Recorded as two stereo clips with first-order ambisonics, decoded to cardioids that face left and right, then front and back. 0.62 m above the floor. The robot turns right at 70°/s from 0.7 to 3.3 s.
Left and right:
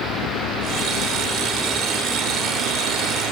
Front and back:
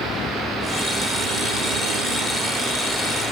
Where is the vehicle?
55° left; by 3.3 s 60° right.